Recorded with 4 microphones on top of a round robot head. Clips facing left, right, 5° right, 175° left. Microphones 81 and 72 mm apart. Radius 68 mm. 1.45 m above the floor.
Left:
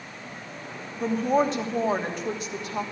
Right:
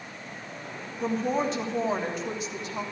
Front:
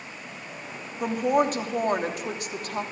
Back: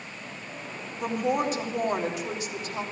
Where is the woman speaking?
35° left, 3 m.